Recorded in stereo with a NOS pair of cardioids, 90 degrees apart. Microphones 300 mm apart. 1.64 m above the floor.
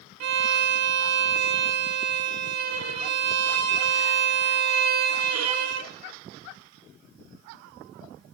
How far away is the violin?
About 1.1 m.